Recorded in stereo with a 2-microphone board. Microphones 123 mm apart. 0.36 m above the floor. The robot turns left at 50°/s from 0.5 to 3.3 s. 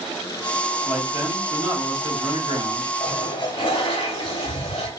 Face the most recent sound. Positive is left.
turn(degrees=45)  # may be behind; listen again after turning